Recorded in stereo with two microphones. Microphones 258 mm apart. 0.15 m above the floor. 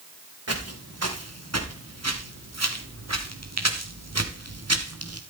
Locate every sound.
0.5 s footsteps: 70° right (ahead or behind), 4 m; by 5.2 s 65° right (ahead or behind), 2.5 m